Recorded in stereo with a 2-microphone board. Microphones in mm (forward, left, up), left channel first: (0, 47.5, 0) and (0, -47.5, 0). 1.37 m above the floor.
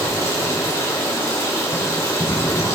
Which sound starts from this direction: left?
Running water, at 0.0 s.